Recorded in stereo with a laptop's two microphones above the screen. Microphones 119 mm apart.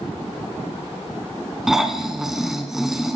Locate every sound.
1.7 s snoring: 5° right (ahead or behind), 1.4 m